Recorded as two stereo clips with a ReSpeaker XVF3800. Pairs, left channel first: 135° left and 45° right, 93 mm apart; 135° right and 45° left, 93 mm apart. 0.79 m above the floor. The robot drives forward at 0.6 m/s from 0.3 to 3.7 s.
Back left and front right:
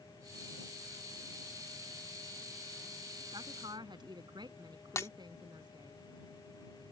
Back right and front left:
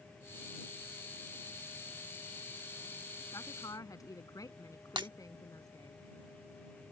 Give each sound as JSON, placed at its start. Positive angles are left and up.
{"t": 3.3, "sound": "a woman speaking", "azimuth_deg": -85}
{"t": 5.0, "sound": "breaking glass", "azimuth_deg": 80}